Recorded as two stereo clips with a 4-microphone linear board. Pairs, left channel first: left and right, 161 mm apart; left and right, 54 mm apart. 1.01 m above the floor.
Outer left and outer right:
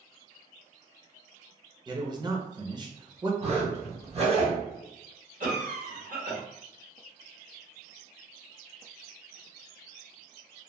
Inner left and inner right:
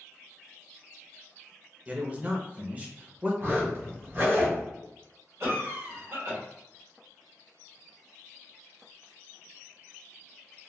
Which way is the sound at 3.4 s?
40° right (ahead or behind).